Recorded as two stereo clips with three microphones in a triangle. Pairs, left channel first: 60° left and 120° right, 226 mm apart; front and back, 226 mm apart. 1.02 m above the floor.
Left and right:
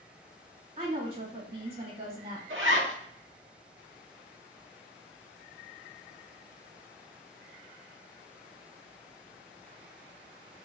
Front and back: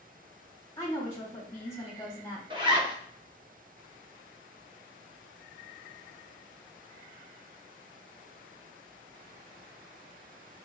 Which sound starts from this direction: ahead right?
A woman speaking, at 0.8 s.